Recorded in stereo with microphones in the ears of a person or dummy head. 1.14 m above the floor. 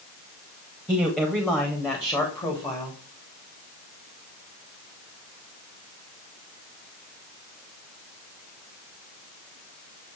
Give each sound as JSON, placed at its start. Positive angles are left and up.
{"t": 0.9, "sound": "a man speaking", "side_deg": 5, "distance_m": 2.0}